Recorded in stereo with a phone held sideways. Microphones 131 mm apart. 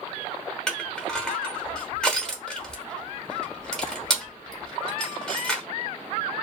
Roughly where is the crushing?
Centre.